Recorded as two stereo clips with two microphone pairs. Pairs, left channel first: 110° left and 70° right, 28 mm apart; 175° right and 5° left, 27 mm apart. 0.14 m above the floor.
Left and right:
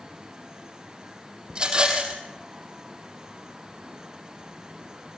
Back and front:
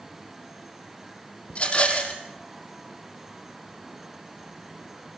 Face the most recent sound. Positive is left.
turn(degrees=-130)